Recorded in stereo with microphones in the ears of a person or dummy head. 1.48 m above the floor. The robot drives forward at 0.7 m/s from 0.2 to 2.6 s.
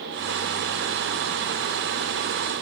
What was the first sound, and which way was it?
Only background noise.